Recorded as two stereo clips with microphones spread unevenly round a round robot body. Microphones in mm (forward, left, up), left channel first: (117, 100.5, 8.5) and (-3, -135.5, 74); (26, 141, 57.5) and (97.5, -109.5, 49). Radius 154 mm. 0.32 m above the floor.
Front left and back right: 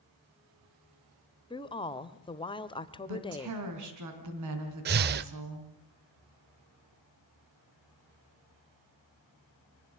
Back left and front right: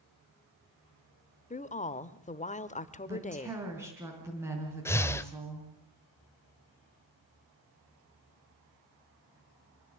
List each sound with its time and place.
1.5 s a woman speaking: 65° left, 1.0 m
3.1 s a woman speaking: 155° right, 4 m
4.8 s breathing: 175° right, 0.5 m